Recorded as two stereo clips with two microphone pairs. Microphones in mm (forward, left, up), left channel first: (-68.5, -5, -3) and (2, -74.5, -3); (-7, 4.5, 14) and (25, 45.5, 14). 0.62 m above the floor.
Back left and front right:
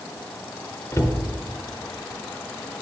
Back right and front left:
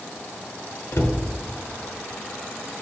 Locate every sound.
0.9 s a cupboard door: 160° right, 0.9 m